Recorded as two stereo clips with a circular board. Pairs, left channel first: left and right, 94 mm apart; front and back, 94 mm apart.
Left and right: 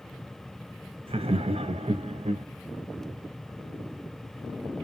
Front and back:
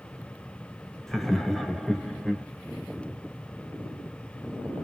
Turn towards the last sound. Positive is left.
turn(degrees=-85)